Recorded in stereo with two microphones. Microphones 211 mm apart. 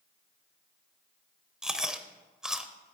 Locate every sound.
1.6 s chewing: 5° right (ahead or behind), 0.6 m